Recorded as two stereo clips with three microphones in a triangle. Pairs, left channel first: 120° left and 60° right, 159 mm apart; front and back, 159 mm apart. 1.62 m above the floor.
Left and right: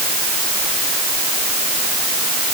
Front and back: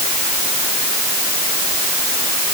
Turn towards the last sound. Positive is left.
No sound to turn to.